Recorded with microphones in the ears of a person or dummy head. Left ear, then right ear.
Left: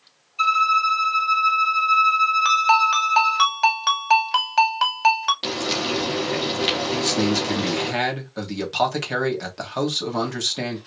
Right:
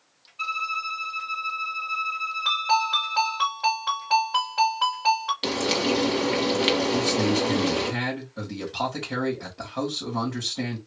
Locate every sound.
0.4 s a violin: 70° left (ahead or behind), 2 m
2.5 s a ringtone: 70° left (ahead or behind), 2 m
5.4 s frying: 5° right (ahead or behind), 1.2 m
6.9 s a man speaking: 75° left (ahead or behind), 1.8 m